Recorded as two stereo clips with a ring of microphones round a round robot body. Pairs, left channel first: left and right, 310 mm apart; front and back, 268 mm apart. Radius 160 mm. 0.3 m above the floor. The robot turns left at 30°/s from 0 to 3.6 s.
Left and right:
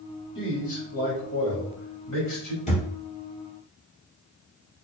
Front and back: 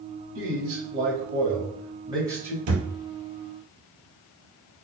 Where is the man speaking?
160° left, 1.5 m; by 2.6 s 95° left, 1.5 m.